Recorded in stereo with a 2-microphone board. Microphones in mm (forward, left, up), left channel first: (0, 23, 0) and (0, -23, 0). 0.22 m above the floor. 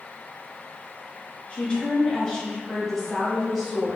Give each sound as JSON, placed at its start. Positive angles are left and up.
{"t": 1.5, "sound": "a woman speaking", "side_deg": 30, "distance_m": 1.6}